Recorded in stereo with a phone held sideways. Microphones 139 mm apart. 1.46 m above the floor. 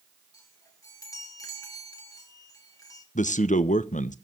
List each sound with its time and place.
0.3 s a chime: 25° left (ahead or behind), 2.5 m
3.1 s a man speaking: 60° left (ahead or behind), 0.9 m